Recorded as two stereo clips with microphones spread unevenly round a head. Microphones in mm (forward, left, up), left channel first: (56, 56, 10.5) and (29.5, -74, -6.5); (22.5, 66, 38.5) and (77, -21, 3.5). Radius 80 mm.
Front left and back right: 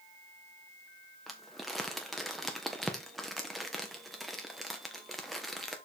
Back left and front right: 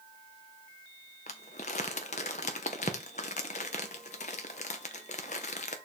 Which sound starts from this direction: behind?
Crumpling, at 1.3 s.